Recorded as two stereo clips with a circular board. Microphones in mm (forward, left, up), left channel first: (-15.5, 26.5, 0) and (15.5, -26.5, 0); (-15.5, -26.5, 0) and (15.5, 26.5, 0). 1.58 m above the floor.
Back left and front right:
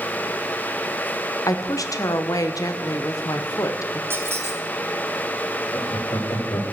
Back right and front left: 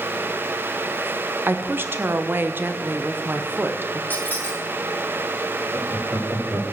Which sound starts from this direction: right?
A squeak, at 4.1 s.